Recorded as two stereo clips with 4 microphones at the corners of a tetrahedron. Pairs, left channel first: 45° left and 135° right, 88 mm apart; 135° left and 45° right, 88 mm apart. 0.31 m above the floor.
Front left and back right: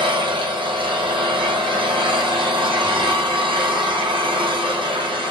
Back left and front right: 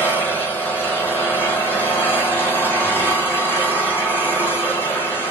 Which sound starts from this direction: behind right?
An engine running, at 0.0 s.